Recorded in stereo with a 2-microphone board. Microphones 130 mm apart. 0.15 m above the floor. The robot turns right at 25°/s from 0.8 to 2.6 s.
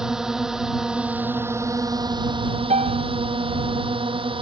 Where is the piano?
65° right (ahead or behind).